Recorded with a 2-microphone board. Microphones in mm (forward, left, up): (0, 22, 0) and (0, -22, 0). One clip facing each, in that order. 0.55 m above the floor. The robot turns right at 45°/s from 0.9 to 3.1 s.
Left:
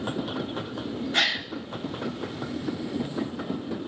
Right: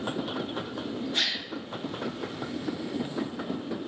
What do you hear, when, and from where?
1.1 s a gasp: 70° left (ahead or behind), 1.4 m; by 1.5 s 55° left (ahead or behind), 1.4 m